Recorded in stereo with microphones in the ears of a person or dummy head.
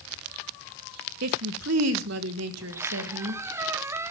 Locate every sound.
1.2 s a woman speaking: 65° right (ahead or behind), 1.2 m; by 3.4 s 85° right, 2.5 m
2.6 s a squeak: 20° right (ahead or behind), 0.5 m